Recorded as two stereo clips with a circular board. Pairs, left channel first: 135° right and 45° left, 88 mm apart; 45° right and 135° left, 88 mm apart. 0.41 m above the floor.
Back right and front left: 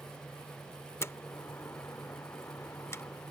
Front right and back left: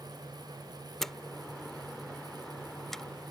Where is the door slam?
125° right.